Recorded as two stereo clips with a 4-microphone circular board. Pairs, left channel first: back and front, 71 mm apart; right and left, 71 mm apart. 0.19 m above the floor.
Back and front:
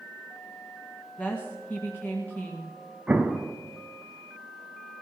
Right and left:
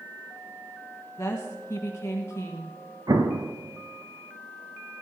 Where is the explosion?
75° left, 0.9 m.